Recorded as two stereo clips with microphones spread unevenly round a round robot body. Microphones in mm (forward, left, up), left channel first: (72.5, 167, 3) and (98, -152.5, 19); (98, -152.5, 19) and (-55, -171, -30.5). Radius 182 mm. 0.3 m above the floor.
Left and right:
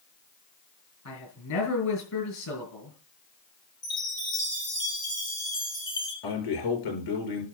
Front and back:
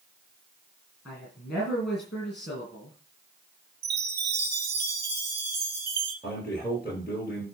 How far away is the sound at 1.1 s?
About 6 m.